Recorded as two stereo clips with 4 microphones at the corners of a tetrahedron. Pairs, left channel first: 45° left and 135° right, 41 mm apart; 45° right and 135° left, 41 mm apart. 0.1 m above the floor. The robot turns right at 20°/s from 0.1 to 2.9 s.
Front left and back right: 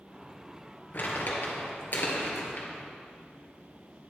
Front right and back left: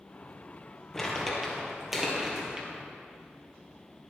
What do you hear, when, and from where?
0.9 s crumpling: 35° left, 2 m; by 2.7 s 70° left, 2 m